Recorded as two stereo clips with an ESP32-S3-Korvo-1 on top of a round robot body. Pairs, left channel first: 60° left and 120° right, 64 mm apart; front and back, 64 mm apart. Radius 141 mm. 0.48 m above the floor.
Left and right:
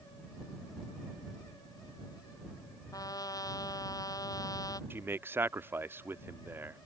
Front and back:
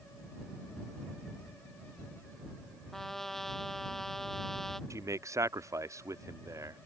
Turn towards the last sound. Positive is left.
turn(degrees=-165)